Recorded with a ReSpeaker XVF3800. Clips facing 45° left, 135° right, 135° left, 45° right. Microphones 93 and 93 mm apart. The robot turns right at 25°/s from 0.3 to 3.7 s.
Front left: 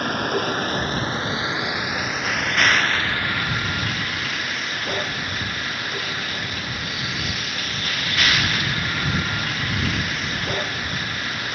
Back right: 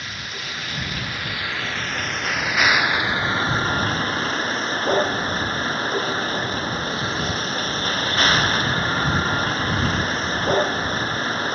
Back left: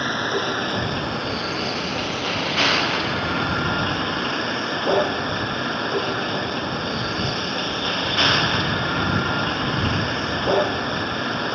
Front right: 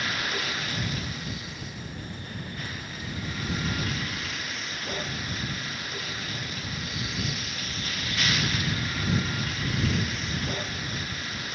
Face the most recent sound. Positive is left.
turn(degrees=170)